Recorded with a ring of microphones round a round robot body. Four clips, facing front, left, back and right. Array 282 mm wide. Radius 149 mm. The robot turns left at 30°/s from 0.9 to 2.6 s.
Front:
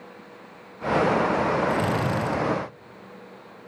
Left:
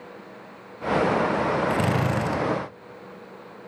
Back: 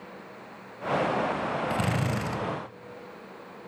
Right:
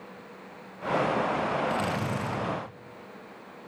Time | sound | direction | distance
1.7 | a drill | 115° left | 2.0 m